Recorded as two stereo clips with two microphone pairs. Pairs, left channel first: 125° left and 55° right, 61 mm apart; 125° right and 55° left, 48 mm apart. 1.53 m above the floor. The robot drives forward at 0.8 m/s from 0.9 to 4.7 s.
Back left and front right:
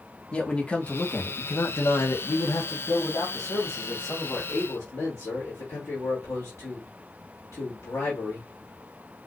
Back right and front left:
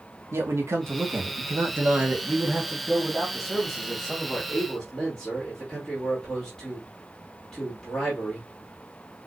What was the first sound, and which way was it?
A man speaking, 55° left.